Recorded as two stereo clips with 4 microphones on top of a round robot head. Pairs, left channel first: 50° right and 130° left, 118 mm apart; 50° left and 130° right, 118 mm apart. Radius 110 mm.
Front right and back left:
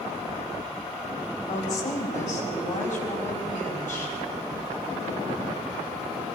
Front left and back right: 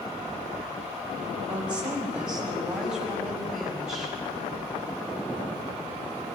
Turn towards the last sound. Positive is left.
turn(degrees=-40)